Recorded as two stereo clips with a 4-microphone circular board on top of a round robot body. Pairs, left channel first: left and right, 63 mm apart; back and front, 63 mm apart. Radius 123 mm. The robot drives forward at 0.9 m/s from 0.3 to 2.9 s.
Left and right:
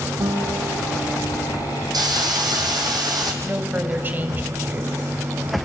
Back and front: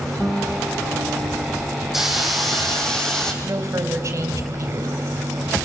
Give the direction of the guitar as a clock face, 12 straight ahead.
3 o'clock.